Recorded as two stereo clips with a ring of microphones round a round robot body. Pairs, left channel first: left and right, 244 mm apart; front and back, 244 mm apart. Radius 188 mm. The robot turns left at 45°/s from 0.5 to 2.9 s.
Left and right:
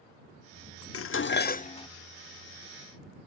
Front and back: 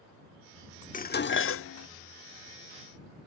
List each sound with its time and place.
0.9 s dishes clattering: 60° left; by 1.9 s 20° left